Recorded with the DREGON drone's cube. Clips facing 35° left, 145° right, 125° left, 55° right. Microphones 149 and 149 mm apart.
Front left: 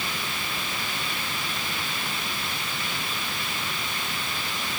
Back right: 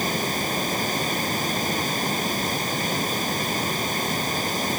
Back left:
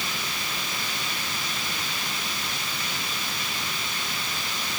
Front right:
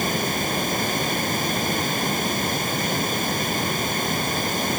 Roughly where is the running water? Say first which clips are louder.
Back right 8 dB, front right 11 dB; right.